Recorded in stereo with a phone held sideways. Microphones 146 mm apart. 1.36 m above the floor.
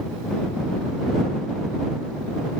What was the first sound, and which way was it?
Only background noise.